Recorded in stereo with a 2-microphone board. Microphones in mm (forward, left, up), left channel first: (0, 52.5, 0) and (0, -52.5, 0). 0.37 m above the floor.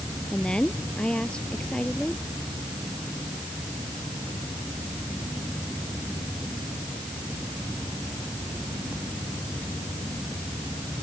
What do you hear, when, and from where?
0.3 s a woman speaking: 10° left (ahead or behind)